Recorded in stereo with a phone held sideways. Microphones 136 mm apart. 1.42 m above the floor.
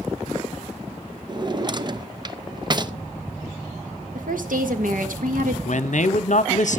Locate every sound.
1.3 s a drawer: 35° right (ahead or behind), 0.6 m
4.2 s a woman speaking: 80° right, 1.7 m
5.7 s a man speaking: 65° left (ahead or behind), 0.8 m